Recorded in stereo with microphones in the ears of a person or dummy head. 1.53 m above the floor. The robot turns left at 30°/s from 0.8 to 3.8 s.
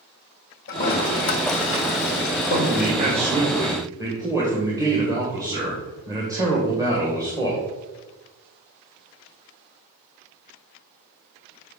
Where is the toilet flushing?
55° left (ahead or behind), 1.5 m; by 2.9 s 50° left (ahead or behind), 1.5 m.